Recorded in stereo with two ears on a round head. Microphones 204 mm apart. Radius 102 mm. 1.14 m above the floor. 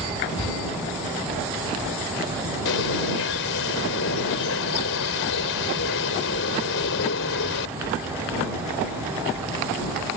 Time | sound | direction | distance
2.6 | a bird | 60° left (ahead or behind) | ?